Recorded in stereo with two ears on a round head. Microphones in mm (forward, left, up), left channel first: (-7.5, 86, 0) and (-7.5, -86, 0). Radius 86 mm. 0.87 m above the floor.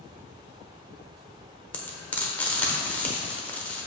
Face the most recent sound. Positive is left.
turn(degrees=10)  # may be behind; listen again after turning